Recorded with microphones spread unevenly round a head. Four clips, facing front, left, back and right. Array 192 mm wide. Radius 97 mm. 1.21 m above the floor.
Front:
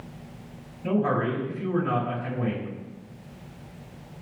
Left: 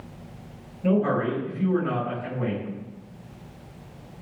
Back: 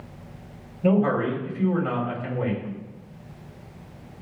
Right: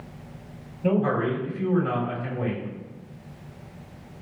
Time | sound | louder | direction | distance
0.8 | a man speaking | even, back 4 dB | 175° right | 6 m